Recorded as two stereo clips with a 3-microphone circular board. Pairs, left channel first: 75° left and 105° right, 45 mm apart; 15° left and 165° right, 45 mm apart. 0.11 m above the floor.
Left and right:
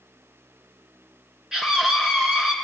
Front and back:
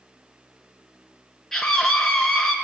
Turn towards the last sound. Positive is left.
turn(degrees=-60)